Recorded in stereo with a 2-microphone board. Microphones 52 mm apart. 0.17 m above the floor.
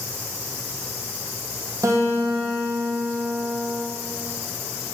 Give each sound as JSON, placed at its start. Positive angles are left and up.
{"t": 1.8, "sound": "a guitar", "side_deg": -80, "distance_m": 2.5}